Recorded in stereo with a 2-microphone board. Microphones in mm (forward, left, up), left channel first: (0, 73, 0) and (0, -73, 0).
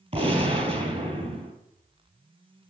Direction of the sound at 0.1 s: 45° right (ahead or behind).